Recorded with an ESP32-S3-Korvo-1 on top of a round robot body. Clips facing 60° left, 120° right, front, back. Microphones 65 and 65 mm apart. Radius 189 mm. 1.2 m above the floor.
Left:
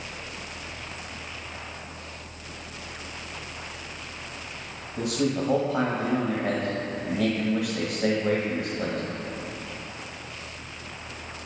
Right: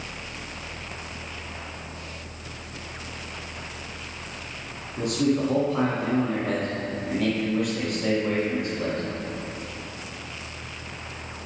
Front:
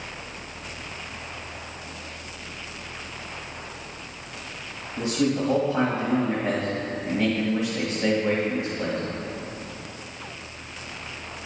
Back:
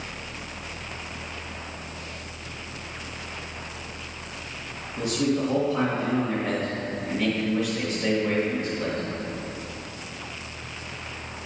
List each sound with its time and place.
5.0 s a man speaking: 70° left, 1.8 m